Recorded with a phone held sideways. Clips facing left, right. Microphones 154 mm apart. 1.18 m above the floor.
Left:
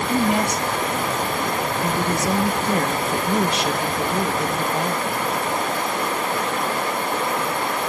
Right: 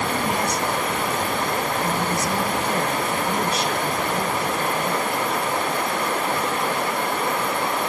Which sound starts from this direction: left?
A woman speaking, at 0.1 s.